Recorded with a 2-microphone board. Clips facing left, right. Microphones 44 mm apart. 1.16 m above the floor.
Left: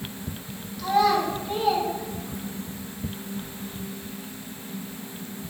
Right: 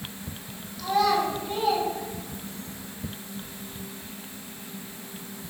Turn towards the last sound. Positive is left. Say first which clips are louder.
# left 2 dB
turn(degrees=10)  # may be behind; listen again after turning